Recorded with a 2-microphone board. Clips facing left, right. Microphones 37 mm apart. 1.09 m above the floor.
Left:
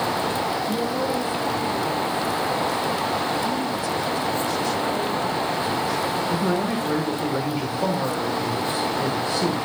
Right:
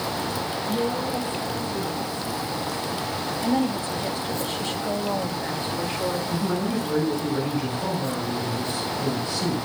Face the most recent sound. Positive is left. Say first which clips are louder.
# left 3 dB
turn(degrees=60)  # may be behind; listen again after turning